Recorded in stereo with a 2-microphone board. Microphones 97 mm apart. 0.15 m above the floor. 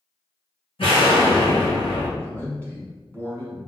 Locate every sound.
0.8 s an explosion: 70° left (ahead or behind), 1.6 m
2.2 s a man speaking: 20° left (ahead or behind), 1.2 m